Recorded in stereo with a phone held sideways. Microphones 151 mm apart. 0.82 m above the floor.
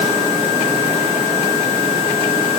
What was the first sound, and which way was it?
Only background noise.